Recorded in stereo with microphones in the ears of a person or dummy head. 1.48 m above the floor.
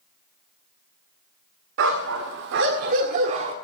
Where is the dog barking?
60° right (ahead or behind), 1.8 m; by 3.5 s 30° right (ahead or behind), 1.6 m.